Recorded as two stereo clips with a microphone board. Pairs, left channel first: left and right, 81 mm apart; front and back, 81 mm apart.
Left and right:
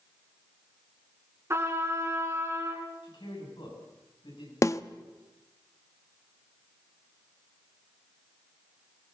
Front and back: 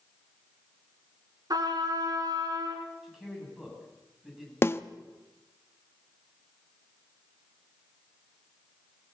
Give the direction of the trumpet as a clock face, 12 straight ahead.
5 o'clock.